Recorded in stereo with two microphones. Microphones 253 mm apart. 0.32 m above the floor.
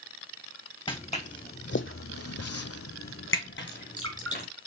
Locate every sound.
0.9 s footsteps: 20° left (ahead or behind), 1.1 m; by 4.5 s 35° left (ahead or behind), 1.7 m
3.7 s dripping: 55° right (ahead or behind), 4 m